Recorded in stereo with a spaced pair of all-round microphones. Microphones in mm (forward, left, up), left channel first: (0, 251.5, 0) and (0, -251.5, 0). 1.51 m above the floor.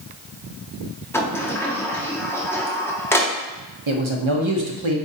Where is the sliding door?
5° left (ahead or behind), 0.6 m.